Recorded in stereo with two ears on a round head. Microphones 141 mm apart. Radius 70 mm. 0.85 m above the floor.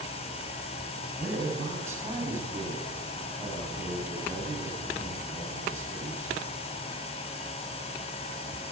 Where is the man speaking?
15° right (ahead or behind), 8.5 m.